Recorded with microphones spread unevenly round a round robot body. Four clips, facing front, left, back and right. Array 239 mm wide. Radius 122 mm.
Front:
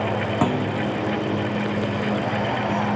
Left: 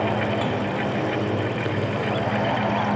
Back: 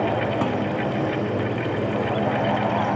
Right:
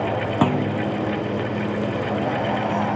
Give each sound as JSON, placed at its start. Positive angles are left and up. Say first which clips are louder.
{"t": 0.4, "sound": "a clunk", "louder": "right 4 dB, front 1 dB", "azimuth_deg": -70, "distance_m": 0.6}